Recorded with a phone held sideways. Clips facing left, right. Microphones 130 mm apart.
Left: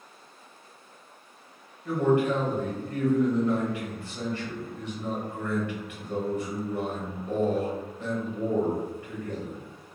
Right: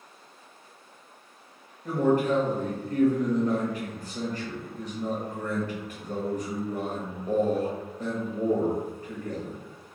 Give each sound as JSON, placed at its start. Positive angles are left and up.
{"t": 1.9, "sound": "a man speaking", "side_deg": -40, "distance_m": 0.9}